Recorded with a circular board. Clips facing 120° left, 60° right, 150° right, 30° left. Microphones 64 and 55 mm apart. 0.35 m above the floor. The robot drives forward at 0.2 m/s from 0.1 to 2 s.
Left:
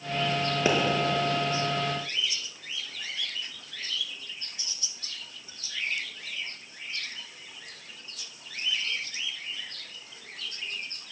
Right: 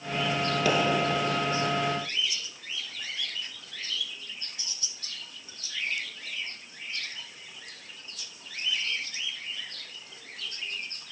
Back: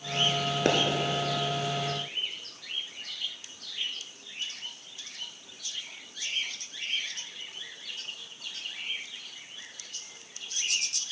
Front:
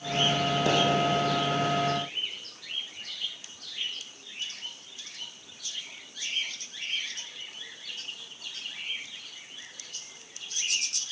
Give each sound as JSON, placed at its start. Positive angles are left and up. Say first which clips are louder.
{"t": 0.7, "sound": "a pop", "louder": "left 1 dB, back 2 dB", "azimuth_deg": -170, "distance_m": 1.5}